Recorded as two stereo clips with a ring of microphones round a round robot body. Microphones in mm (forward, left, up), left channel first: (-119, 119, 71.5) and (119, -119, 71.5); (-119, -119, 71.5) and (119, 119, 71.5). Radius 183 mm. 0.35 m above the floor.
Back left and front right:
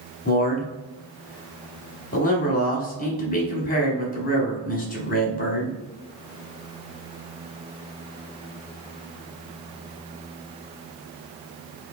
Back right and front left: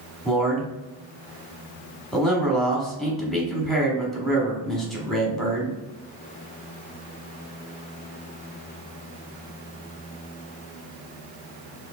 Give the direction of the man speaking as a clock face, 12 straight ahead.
7 o'clock.